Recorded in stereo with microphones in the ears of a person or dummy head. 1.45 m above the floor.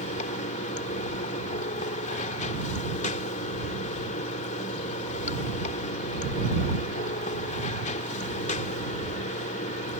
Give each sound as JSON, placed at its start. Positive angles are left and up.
{"t": 0.0, "sound": "running water", "side_deg": 40}